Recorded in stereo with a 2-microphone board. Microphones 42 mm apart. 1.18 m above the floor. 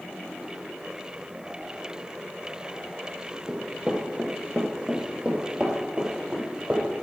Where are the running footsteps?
15° right (ahead or behind), 1.1 m; by 6.8 s 35° right (ahead or behind), 2.5 m.